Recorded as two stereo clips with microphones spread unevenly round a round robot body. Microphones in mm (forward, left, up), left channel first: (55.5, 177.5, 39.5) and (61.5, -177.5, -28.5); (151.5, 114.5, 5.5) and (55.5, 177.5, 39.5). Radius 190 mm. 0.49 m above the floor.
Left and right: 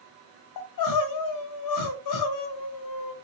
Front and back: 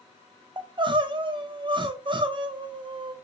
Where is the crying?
95° left, 0.5 m.